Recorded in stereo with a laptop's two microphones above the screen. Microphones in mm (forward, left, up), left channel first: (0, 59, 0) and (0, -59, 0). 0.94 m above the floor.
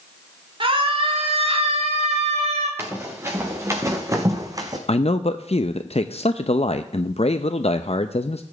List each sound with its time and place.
0.6 s a scream: 45° right (ahead or behind), 3 m; by 2.7 s 70° right (ahead or behind), 3 m
2.8 s running footsteps: 20° right (ahead or behind), 4 m; by 4.8 s 35° right (ahead or behind), 2 m
4.9 s a man speaking: 60° left (ahead or behind), 0.6 m